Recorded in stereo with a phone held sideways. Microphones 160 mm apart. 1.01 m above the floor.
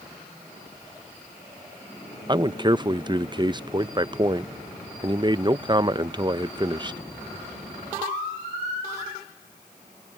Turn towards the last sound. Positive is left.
turn(degrees=-30)  # may be behind; listen again after turning